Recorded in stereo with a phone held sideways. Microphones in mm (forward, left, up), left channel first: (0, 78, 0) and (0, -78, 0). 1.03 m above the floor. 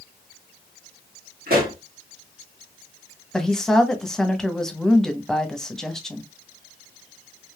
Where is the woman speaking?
5° left (ahead or behind), 0.7 m.